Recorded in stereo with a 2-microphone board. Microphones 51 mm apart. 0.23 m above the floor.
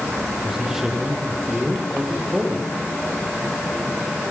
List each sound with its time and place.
0.4 s a man speaking: 10° right (ahead or behind), 8 m